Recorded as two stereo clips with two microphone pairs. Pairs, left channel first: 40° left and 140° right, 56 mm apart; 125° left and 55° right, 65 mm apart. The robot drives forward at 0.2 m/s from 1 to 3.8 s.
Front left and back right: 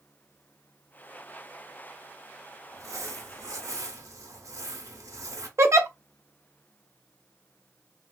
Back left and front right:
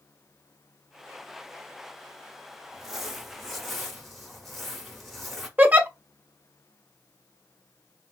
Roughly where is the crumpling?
Behind right.